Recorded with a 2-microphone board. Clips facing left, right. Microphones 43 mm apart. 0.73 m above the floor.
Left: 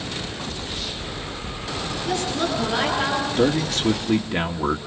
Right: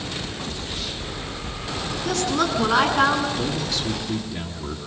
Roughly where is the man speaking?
Left.